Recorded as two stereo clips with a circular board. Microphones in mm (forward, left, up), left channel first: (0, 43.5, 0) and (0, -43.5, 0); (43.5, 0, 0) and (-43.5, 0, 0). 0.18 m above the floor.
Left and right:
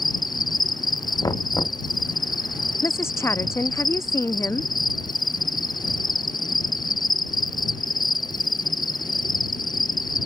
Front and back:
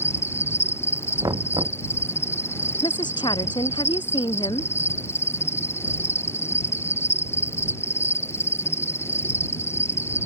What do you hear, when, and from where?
0.0 s an insect: 60° left
1.2 s knocking: 140° left
2.8 s a woman speaking: 30° left